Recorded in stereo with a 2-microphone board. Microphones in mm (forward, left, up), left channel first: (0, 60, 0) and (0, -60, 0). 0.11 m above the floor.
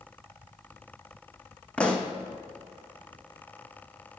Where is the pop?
10° left (ahead or behind), 1.1 m.